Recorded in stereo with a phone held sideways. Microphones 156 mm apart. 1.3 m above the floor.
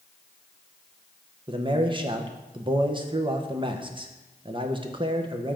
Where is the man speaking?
30° right (ahead or behind), 0.9 m.